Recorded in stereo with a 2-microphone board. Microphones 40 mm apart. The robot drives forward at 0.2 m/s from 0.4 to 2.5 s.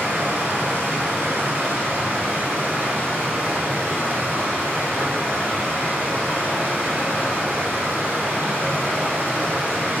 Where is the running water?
70° right (ahead or behind), 0.7 m; by 10.0 s 50° right (ahead or behind), 0.8 m.